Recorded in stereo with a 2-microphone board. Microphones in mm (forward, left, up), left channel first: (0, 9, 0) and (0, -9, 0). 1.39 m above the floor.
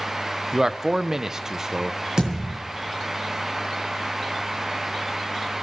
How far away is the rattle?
I don't hear a rattle.